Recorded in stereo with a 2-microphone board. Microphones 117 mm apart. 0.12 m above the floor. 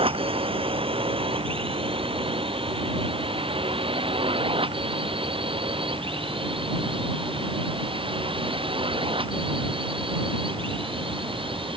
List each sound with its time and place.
0.0 s a drone: 50° right (ahead or behind)